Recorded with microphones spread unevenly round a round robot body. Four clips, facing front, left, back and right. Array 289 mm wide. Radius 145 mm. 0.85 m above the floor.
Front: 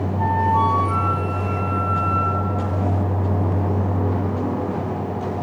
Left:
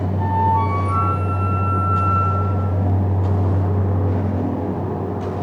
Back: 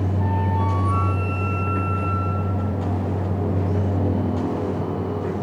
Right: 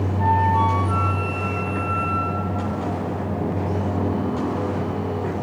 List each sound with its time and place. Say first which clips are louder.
0.2 s a flute: even, front 9 dB; 15° right, 3.5 m